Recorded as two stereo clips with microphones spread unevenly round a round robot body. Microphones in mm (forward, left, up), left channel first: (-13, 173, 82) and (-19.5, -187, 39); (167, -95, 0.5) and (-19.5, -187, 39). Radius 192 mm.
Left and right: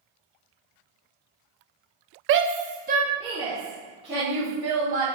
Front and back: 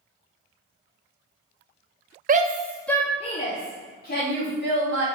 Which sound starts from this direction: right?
A shout, at 2.3 s.